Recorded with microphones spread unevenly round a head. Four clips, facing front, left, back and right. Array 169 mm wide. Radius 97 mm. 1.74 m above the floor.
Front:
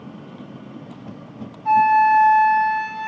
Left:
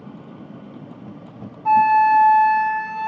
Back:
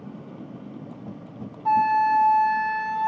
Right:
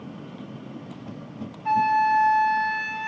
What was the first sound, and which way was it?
A flute, 140° left.